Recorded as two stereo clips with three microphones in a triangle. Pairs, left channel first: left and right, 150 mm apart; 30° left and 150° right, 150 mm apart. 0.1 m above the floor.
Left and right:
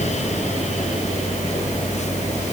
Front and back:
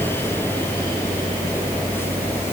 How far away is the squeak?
No squeak in this recording.